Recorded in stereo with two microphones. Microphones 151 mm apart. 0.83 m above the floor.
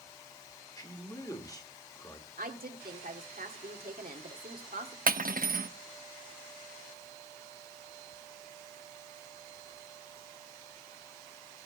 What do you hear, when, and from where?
0.8 s a man speaking: 25° left (ahead or behind), 1.9 m
2.4 s a woman speaking: 80° right, 1.7 m
5.1 s cutlery clinking: 75° right (ahead or behind), 0.6 m